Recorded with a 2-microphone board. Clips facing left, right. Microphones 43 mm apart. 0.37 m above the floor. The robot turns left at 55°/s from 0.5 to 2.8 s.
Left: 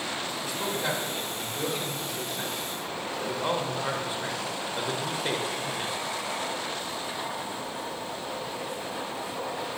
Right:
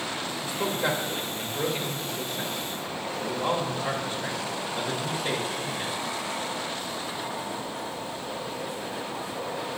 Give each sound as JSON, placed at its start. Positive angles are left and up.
{"t": 0.4, "sound": "a man speaking", "side_deg": -30, "distance_m": 1.0}